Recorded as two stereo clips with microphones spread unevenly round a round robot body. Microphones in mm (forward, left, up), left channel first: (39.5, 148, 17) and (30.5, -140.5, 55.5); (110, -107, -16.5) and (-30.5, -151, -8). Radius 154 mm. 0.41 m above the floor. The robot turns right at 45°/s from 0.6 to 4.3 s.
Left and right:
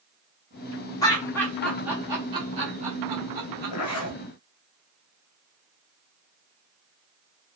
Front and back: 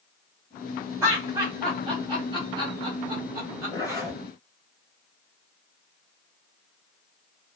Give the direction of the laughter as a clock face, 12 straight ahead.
8 o'clock.